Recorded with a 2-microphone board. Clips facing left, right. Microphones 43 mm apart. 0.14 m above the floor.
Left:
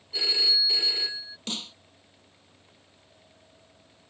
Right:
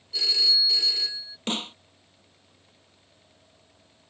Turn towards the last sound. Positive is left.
turn(degrees=-35)  # may be behind; listen again after turning